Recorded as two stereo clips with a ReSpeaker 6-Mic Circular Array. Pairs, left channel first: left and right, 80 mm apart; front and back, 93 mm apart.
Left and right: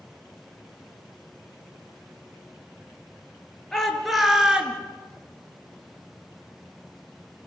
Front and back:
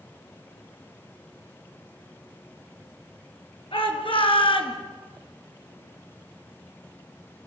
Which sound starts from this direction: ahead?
A shout, at 3.7 s.